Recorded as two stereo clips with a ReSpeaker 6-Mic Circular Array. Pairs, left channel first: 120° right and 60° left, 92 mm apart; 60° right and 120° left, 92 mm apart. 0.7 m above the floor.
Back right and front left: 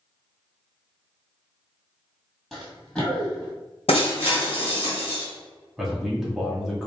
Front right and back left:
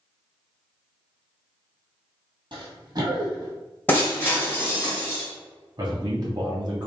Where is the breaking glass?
135° right, 1.8 m.